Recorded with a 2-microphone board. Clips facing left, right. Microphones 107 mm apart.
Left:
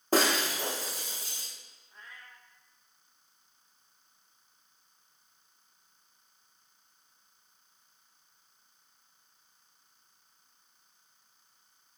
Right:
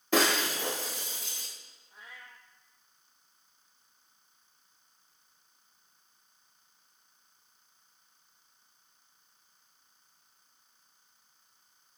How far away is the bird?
I don't hear a bird.